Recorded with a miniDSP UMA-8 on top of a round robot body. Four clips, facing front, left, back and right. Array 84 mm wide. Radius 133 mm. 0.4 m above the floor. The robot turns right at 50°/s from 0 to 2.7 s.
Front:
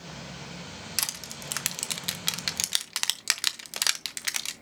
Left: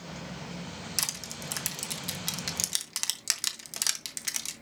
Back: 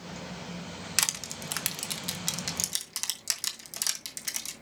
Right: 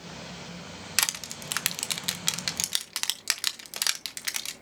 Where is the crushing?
110° right, 1.0 m; by 4.5 s 25° right, 1.0 m.